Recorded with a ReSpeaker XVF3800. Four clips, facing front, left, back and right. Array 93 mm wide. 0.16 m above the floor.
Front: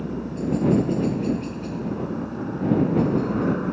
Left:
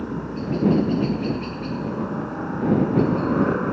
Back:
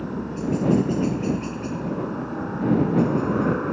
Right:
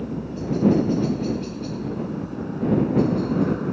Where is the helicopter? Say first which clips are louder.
Left 1 dB, even; 115° left; by 3.7 s 110° left.